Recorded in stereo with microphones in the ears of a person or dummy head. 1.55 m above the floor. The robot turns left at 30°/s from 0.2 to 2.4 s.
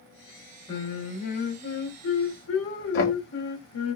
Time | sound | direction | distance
0.7 | singing | 165° left | 2.5 m
2.9 | knocking | 75° left (ahead or behind) | 2 m